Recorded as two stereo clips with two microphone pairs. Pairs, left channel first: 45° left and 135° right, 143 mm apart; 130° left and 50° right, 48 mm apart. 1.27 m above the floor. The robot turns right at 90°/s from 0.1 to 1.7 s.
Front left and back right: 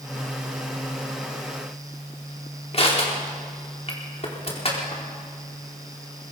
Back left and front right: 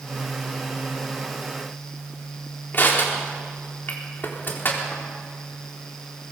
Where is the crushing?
90° left, 4 m.